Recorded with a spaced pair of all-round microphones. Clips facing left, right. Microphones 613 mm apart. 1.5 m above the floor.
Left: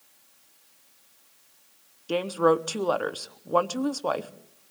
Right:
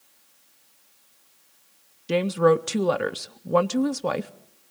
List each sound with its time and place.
2.1 s a woman speaking: 50° right (ahead or behind), 0.8 m